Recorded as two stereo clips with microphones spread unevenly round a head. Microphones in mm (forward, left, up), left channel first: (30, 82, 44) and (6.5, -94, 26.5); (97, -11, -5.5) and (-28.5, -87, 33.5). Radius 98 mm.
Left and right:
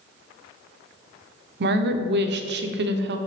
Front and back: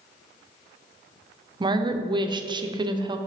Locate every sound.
1.6 s a woman speaking: 85° right, 0.7 m